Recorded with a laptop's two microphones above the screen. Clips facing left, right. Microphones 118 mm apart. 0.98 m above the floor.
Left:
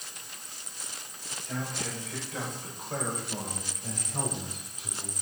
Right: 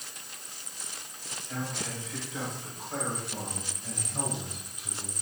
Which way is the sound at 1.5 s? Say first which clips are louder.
Left 1 dB; 60° left (ahead or behind).